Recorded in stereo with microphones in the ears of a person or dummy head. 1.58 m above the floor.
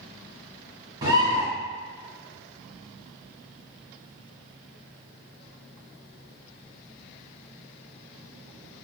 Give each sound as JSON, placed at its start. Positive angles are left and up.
{"t": 1.0, "sound": "a bird", "side_deg": -20, "distance_m": 0.9}